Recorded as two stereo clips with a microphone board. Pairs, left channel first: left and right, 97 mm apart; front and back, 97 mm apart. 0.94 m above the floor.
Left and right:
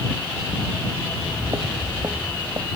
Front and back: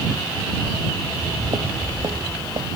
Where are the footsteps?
135° right; by 2.7 s 150° right.